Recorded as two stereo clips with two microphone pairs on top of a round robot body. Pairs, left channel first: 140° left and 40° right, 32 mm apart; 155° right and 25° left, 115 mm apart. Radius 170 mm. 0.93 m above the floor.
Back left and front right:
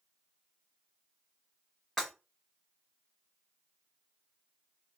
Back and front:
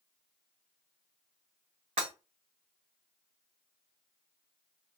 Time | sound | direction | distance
2.0 | breaking glass | 60° left | 1.2 m